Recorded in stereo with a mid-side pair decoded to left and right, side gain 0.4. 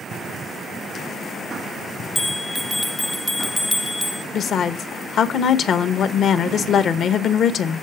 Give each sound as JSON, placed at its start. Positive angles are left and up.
{"t": 2.1, "sound": "a bell", "azimuth_deg": 5, "distance_m": 0.6}
{"t": 4.3, "sound": "a woman speaking", "azimuth_deg": 65, "distance_m": 0.9}